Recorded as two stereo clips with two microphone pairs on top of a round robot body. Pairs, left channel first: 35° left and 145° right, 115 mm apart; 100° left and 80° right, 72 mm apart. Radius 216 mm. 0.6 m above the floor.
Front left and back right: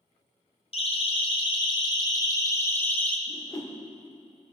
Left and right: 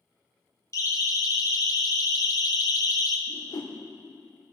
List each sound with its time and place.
0.7 s a siren: 65° left, 3.5 m; by 3.2 s 110° left, 2.5 m
3.3 s a whoosh: 95° left, 2.5 m